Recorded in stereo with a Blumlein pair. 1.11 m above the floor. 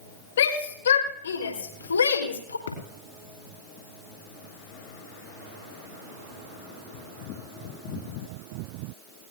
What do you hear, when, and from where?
0.4 s a shout: 60° left, 5 m; by 2.6 s 80° left, 3.5 m
2.7 s a thud: 65° left, 4.5 m